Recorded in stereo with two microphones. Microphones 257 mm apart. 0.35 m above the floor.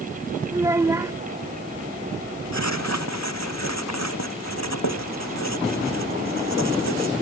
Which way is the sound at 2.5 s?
85° left.